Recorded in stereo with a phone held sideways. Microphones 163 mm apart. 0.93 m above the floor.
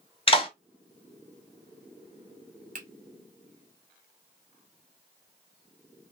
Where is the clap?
35° left (ahead or behind), 1.7 m.